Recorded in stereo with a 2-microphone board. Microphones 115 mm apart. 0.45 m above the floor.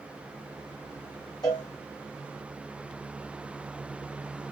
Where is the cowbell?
35° left (ahead or behind), 0.9 m.